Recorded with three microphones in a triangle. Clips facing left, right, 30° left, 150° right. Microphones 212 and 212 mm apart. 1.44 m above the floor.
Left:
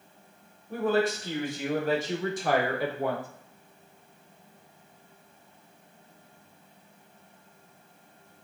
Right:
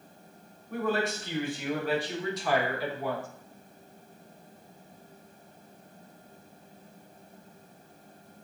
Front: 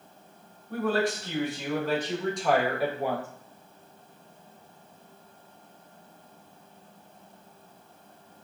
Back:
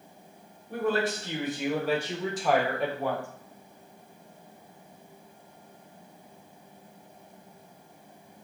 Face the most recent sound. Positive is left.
turn(degrees=95)